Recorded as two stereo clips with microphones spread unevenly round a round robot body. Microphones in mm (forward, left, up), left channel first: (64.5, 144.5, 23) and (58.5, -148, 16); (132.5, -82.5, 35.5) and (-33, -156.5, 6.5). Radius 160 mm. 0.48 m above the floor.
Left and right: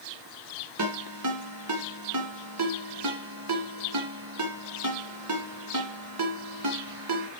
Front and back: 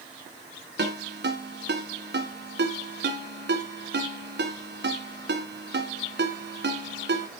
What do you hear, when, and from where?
0.8 s a ringtone: 135° right, 2 m